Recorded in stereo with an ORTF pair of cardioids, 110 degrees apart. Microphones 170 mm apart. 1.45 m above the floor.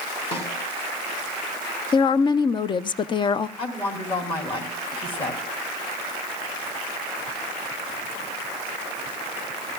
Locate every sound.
0.3 s a snare drum: 35° left, 2.5 m
1.9 s a woman speaking: 30° left, 0.5 m
3.6 s a woman speaking: 30° left, 3 m